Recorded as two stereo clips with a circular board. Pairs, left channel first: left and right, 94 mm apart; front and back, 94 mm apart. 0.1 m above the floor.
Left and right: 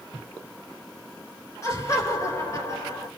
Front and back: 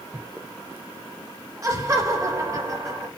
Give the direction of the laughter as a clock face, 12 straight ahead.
7 o'clock.